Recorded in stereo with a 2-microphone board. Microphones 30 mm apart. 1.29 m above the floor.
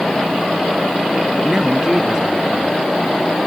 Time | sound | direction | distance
1.4 | a woman speaking | 25° right (ahead or behind) | ?